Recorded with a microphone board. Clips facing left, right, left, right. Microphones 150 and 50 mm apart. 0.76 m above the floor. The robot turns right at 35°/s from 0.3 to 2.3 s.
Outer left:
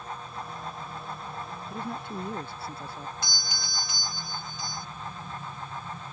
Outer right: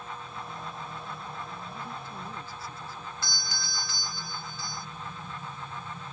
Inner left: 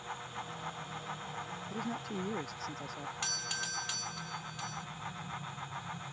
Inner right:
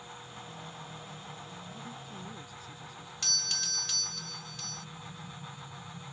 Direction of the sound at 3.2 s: 20° left (ahead or behind).